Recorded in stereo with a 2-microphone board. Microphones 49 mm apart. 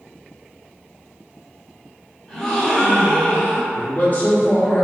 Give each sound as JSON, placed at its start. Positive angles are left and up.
{"t": 2.3, "sound": "a gasp", "side_deg": 10, "distance_m": 1.4}
{"t": 3.7, "sound": "a man speaking", "side_deg": 35, "distance_m": 1.3}